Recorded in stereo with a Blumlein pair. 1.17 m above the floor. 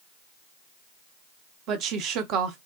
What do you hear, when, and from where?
1.7 s a woman speaking: 35° right, 0.7 m